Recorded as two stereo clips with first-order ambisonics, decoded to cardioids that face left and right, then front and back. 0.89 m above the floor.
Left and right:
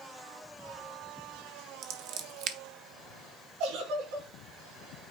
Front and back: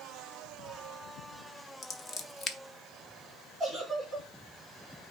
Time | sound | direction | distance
1.8 | scissors | 60° right | 0.9 m
3.6 | a giggle | 95° right | 5 m